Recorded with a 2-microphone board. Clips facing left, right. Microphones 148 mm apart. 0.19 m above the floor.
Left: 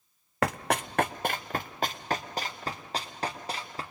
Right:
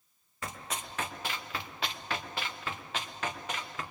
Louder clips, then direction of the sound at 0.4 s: Left 12 dB; 75° left (ahead or behind).